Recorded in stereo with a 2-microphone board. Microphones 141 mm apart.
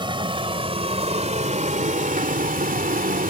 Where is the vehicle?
35° right (ahead or behind); by 3.3 s 75° right (ahead or behind).